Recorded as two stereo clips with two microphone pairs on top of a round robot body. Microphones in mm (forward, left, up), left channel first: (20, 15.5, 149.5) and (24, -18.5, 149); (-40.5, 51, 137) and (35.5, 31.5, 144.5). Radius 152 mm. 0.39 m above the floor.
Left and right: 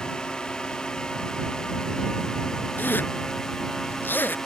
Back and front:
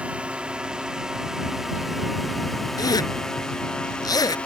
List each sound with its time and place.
0.0 s a drone: 55° left; by 4.5 s 145° left
2.8 s a zipper: 125° left